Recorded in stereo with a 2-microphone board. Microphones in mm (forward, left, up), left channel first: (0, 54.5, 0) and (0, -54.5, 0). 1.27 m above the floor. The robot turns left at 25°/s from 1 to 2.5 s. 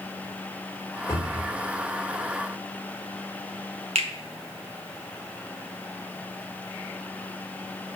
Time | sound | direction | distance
1.1 | a cupboard door | 25° left (ahead or behind) | 3 m
4.0 | a finger snap | 80° right | 1.1 m